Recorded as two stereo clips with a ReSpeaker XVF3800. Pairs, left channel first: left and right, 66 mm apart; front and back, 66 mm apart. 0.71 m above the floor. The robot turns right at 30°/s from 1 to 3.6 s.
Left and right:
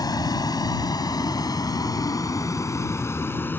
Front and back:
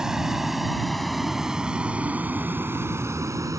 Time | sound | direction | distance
0.0 | a vehicle | 100° left | ?